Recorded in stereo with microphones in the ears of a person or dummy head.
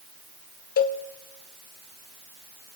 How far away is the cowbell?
About 0.7 m.